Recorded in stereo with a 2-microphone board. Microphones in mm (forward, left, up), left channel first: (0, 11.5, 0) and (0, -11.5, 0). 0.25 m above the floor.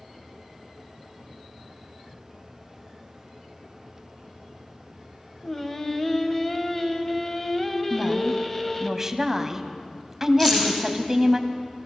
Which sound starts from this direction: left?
Keys jangling, at 10.4 s.